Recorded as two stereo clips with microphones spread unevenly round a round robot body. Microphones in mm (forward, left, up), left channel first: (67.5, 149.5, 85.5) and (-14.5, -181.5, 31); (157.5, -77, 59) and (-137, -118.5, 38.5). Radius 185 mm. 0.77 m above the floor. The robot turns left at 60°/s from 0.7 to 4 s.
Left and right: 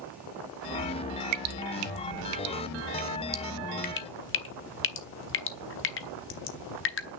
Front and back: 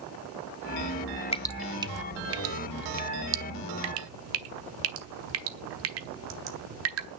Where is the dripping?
65° right, 1.1 m; by 7.1 s 135° left, 1.1 m.